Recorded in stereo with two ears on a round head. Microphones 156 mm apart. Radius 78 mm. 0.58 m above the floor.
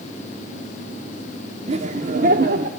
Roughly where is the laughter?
Right.